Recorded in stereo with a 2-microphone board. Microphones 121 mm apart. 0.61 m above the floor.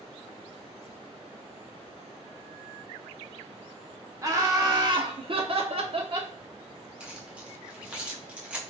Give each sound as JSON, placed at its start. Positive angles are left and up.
{"t": 4.2, "sound": "laughter", "side_deg": -25, "distance_m": 1.4}
{"t": 7.0, "sound": "keys jangling", "side_deg": -10, "distance_m": 1.1}